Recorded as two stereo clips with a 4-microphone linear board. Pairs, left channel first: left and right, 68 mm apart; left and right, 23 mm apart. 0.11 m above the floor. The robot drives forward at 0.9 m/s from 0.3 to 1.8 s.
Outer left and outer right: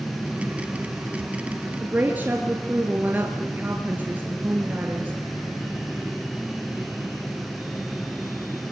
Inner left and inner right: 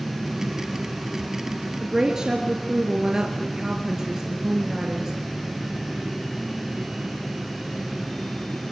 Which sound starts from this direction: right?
A woman speaking, at 1.8 s.